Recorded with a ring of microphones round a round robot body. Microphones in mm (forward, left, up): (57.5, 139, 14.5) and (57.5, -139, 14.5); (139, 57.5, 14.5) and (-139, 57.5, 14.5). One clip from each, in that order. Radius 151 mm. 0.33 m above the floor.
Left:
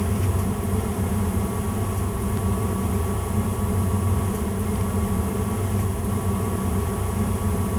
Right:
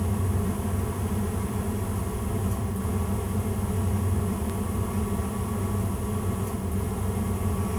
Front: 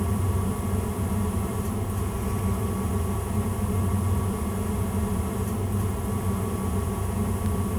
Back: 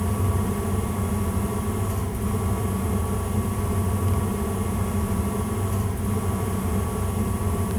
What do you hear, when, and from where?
Only background noise.